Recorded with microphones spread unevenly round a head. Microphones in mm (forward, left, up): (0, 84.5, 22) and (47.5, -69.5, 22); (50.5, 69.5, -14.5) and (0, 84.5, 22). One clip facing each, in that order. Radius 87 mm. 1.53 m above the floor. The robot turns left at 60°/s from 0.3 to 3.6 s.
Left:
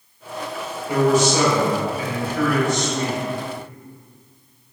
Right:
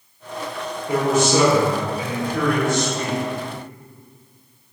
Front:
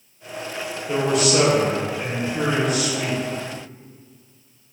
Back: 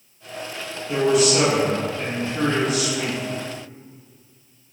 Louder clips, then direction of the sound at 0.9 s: Left 1 dB, back 2 dB; 10° right.